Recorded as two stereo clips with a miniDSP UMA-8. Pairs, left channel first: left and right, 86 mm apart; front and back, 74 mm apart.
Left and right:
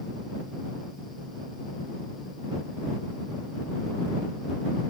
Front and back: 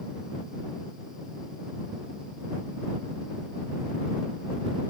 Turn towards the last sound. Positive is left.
No sound to turn to.